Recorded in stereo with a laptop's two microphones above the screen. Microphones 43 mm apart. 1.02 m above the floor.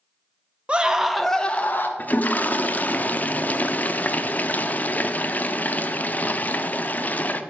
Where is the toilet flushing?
40° left (ahead or behind), 0.6 m.